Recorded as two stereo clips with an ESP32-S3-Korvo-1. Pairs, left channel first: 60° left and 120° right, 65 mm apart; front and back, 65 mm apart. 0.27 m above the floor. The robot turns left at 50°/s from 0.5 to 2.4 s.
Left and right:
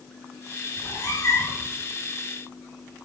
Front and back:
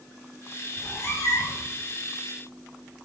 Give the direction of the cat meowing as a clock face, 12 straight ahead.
10 o'clock.